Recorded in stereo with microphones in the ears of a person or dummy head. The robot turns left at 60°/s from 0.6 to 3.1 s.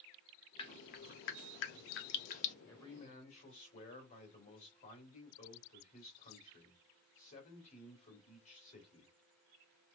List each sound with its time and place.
0.6 s dripping: 30° left (ahead or behind), 0.7 m; by 2.5 s 35° left (ahead or behind), 0.7 m
2.7 s a man speaking: 15° left (ahead or behind), 1.8 m; by 9.1 s 35° left (ahead or behind), 1.8 m